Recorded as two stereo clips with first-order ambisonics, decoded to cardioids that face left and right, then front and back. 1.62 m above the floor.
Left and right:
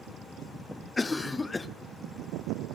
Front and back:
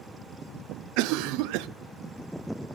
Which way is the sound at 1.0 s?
170° left.